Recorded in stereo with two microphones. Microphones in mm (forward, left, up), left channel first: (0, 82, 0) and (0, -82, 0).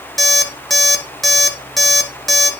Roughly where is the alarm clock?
Centre.